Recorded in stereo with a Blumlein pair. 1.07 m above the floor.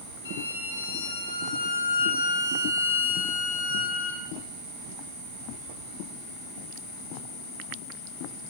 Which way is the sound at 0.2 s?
70° left.